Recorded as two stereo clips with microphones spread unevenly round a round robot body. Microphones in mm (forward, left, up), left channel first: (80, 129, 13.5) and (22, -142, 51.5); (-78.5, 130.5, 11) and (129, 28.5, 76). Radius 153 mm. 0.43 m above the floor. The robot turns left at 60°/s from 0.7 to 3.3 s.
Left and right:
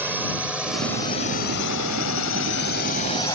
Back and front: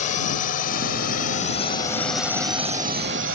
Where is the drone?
170° left; by 3.4 s 5° left.